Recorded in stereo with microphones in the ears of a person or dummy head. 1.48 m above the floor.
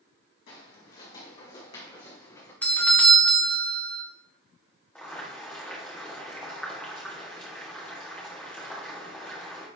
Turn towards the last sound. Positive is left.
turn(degrees=5)  # may be behind; listen again after turning